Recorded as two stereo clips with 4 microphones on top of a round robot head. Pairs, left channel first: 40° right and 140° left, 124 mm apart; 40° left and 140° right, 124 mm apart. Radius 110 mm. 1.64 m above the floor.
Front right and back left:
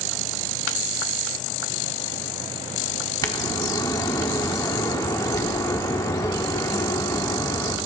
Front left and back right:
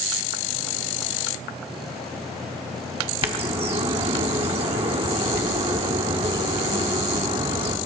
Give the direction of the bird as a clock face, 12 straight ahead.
3 o'clock.